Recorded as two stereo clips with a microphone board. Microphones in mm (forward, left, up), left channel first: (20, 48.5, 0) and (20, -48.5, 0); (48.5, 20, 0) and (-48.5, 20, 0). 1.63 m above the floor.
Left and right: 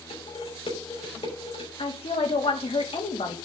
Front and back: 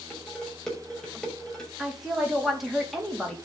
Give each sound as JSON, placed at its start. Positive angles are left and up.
{"t": 0.1, "sound": "dishes clattering", "azimuth_deg": 85, "distance_m": 6.0}
{"t": 1.8, "sound": "a woman speaking", "azimuth_deg": 90, "distance_m": 4.0}